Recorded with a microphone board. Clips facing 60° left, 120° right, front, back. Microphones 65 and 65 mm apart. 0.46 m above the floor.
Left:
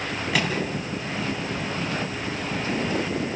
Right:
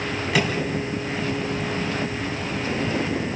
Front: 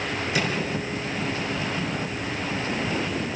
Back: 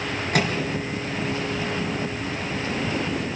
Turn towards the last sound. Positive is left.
turn(degrees=150)